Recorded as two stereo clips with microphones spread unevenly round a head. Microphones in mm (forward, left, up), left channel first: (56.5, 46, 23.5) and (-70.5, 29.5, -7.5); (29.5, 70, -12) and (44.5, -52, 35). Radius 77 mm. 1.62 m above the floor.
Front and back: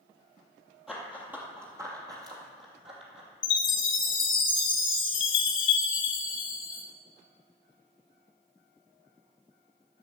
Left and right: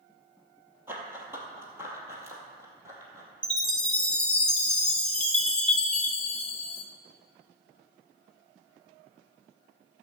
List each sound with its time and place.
0.9 s running footsteps: 65° right, 1.9 m; by 3.3 s 120° right, 2.5 m
3.4 s a chime: 5° right, 1.7 m